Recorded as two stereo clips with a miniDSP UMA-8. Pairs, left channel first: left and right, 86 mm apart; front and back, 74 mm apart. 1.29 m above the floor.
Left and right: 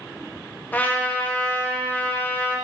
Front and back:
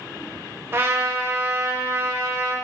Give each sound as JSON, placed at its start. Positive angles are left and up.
{"t": 0.7, "sound": "a trumpet", "azimuth_deg": 145, "distance_m": 0.5}